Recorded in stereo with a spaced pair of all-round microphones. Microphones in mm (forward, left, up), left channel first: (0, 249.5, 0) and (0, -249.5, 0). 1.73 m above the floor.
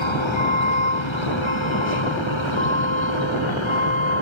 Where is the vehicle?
75° left (ahead or behind).